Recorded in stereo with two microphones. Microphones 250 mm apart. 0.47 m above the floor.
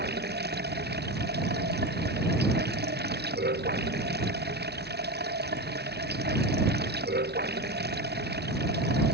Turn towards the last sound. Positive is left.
turn(degrees=-45)  # may be behind; listen again after turning